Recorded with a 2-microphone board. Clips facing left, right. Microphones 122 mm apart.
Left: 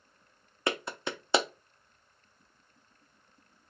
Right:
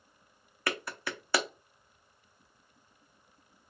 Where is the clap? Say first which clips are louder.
Left 3 dB; 20° left (ahead or behind), 0.5 m.